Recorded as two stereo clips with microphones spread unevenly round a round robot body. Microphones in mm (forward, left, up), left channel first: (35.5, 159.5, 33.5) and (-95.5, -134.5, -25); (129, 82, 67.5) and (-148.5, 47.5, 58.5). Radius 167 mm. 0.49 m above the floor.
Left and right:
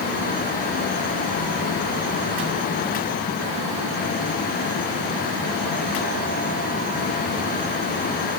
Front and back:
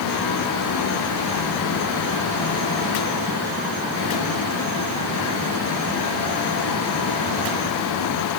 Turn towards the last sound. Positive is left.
No sound to turn to.